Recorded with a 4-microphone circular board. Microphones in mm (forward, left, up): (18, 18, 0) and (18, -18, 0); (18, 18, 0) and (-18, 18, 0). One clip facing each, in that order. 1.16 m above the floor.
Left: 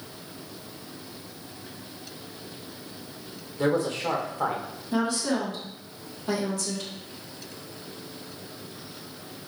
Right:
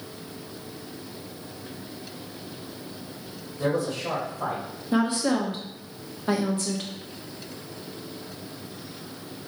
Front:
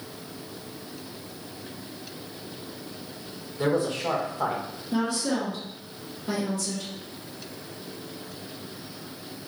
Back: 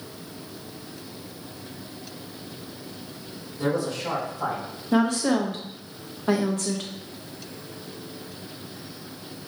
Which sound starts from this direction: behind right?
A woman speaking, at 4.9 s.